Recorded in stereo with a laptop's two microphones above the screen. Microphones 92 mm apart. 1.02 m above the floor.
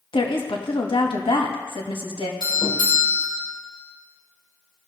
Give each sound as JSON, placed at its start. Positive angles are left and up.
{"t": 0.1, "sound": "a woman speaking", "side_deg": 70, "distance_m": 1.2}
{"t": 2.4, "sound": "a doorbell", "side_deg": 60, "distance_m": 2.0}